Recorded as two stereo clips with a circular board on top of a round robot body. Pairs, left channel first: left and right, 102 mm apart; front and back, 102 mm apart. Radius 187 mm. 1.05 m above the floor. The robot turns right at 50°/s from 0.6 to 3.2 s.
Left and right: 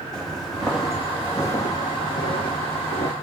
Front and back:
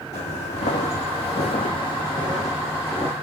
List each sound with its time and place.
0.1 s footsteps: 5° left, 2 m; by 3.1 s 75° left, 1.8 m